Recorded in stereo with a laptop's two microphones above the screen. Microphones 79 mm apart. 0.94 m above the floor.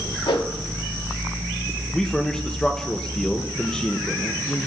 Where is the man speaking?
5° left (ahead or behind), 0.7 m.